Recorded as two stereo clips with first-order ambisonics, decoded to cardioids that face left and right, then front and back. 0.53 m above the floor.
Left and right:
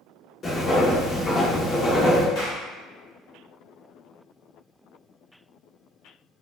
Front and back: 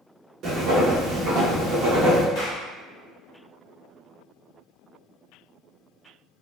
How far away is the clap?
About 1.4 m.